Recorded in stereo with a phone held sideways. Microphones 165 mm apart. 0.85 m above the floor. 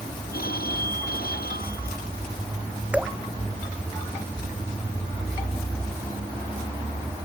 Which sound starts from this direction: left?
A phone ringing, at 0.3 s.